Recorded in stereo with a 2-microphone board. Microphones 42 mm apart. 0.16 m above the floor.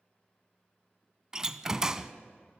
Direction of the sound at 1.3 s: 15° right (ahead or behind).